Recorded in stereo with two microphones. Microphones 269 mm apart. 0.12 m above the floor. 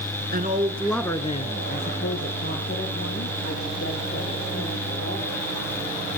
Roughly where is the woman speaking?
Right.